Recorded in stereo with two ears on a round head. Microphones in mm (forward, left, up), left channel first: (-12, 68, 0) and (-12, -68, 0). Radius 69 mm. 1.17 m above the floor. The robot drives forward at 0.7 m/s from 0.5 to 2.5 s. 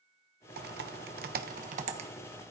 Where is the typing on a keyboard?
60° right (ahead or behind), 0.9 m; by 2.1 s 45° right (ahead or behind), 1.1 m.